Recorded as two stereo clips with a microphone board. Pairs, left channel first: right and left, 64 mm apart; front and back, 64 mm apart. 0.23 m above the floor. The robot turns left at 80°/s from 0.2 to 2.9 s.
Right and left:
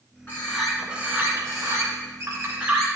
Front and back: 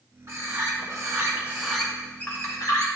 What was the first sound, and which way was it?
A bird, 145° right.